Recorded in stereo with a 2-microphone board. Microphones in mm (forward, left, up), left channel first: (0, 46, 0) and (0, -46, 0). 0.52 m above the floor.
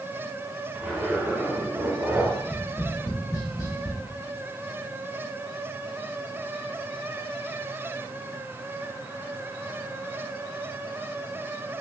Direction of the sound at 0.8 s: 10° right (ahead or behind).